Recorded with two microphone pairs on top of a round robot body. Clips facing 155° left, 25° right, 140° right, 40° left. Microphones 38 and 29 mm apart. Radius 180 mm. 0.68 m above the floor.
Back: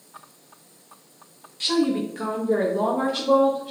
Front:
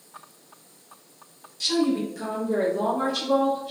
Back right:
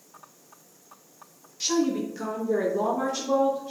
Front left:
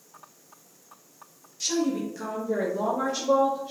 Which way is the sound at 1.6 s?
165° left.